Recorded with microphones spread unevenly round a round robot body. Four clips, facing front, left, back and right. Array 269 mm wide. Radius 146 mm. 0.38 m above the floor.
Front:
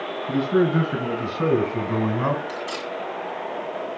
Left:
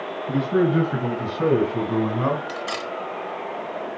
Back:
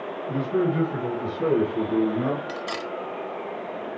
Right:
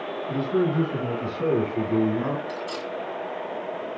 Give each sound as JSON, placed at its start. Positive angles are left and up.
{"t": 0.3, "sound": "a man speaking", "azimuth_deg": 50, "distance_m": 3.5}
{"t": 2.5, "sound": "cutlery clinking", "azimuth_deg": 110, "distance_m": 0.9}